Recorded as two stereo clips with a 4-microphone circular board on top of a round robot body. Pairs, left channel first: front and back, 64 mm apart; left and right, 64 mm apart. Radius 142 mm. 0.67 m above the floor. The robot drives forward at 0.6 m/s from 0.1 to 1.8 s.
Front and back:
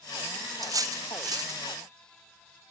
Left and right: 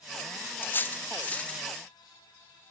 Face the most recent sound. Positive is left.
turn(degrees=165)